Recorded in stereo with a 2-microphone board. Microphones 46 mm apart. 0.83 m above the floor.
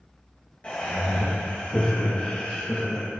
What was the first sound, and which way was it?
Laughter, 25° left (ahead or behind).